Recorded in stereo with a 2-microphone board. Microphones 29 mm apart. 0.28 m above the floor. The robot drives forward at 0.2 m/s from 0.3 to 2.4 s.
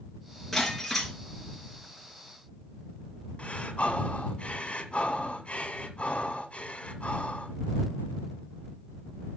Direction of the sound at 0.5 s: 5° left (ahead or behind).